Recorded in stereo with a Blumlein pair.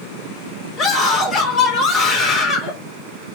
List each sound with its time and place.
0.8 s a scream: 30° left, 4 m